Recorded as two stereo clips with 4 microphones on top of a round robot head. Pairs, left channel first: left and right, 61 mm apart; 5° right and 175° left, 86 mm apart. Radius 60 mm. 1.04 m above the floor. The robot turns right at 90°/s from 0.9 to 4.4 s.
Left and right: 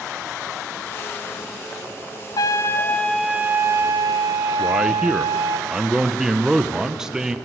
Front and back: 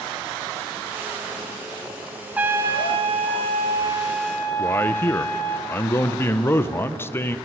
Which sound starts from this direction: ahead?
A man speaking, at 4.6 s.